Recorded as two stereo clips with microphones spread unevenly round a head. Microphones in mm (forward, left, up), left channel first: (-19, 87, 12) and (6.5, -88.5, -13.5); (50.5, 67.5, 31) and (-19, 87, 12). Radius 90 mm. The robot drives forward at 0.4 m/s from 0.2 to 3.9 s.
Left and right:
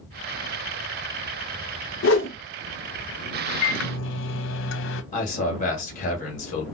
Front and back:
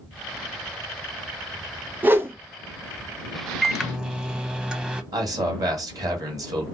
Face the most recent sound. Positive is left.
turn(degrees=150)